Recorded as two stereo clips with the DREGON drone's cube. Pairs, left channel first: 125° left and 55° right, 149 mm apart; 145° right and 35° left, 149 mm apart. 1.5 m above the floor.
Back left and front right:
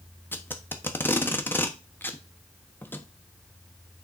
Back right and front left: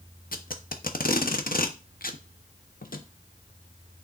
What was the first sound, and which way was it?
Tape being pulled, 160° right.